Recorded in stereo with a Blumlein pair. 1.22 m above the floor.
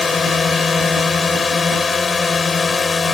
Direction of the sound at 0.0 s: 15° left.